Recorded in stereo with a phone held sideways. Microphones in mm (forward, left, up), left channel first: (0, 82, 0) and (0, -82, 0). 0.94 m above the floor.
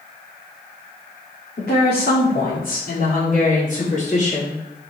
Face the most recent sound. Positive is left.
turn(degrees=40)  # may be behind; listen again after turning